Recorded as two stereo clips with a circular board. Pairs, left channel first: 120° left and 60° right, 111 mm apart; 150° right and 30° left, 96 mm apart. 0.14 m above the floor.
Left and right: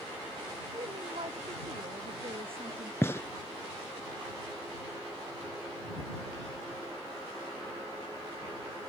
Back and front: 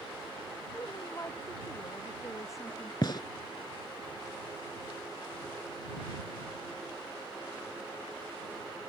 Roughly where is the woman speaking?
Right.